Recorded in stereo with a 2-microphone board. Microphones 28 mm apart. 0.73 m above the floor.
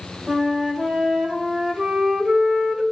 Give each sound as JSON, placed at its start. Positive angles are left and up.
{"t": 0.3, "sound": "a flute", "side_deg": -20, "distance_m": 3.0}